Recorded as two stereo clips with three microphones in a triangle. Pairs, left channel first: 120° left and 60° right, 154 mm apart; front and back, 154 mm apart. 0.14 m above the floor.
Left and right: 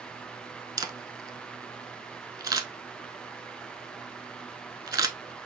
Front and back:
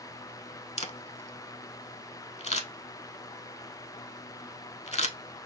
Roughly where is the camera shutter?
Ahead.